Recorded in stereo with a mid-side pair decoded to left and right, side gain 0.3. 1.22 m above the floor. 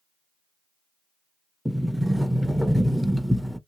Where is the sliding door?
Straight ahead, 0.5 m.